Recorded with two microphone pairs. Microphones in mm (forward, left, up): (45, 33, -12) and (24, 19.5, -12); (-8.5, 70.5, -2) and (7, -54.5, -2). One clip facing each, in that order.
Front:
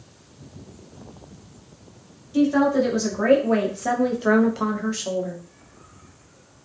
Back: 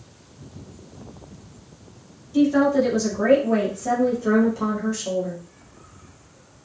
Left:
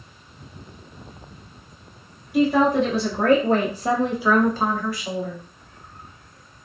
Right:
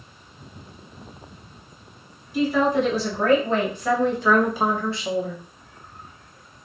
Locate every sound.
2.3 s a woman speaking: 90° left, 1.1 m; by 5.4 s 30° right, 0.8 m